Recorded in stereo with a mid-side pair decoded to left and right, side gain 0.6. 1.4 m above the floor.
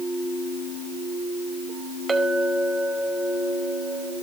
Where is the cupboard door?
I don't hear a cupboard door.